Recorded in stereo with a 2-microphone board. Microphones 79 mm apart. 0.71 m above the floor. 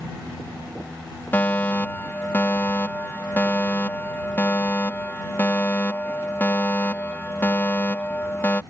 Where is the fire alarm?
25° left (ahead or behind).